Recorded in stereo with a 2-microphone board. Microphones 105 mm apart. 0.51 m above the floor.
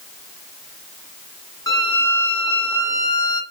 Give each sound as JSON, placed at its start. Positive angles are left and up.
{"t": 1.7, "sound": "a violin", "side_deg": 30, "distance_m": 0.5}